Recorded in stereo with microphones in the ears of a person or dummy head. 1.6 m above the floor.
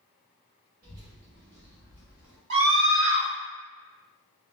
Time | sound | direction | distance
0.8 | a child speaking | 45° right (ahead or behind) | 1.3 m
2.5 | a scream | 75° right (ahead or behind) | 1.4 m